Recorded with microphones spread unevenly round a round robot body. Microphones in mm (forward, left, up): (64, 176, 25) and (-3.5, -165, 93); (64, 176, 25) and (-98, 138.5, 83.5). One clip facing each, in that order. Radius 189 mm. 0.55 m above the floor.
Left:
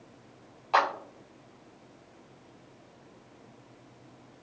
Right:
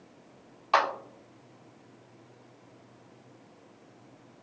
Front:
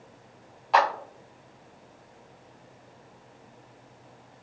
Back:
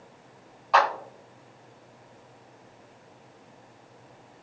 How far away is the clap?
About 1.3 m.